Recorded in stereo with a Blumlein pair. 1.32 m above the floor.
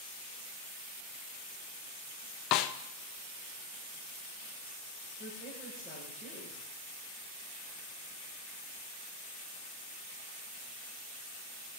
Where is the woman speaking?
10° left, 5.5 m.